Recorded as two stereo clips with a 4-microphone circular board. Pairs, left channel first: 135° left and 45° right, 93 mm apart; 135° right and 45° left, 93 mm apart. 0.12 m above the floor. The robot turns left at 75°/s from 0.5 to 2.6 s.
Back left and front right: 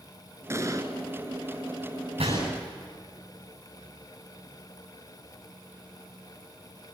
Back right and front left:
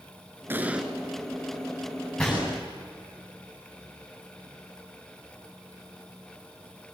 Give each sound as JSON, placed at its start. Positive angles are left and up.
{"t": 0.5, "sound": "an explosion", "azimuth_deg": -5, "distance_m": 1.7}
{"t": 2.2, "sound": "a gunshot", "azimuth_deg": -55, "distance_m": 10.0}